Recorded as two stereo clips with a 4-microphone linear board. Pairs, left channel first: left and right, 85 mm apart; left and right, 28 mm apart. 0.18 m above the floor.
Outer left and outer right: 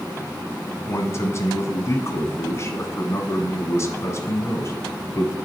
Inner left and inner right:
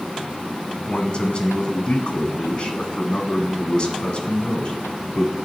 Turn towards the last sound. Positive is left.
turn(degrees=35)  # may be behind; listen again after turning